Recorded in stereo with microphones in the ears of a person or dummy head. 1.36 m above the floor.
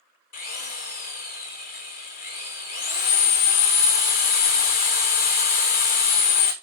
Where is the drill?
45° left (ahead or behind), 1.3 m.